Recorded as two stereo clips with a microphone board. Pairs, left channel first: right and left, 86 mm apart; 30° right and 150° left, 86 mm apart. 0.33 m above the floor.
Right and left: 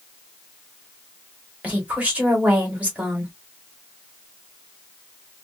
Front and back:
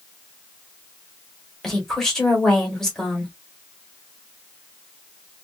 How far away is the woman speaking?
About 1.2 m.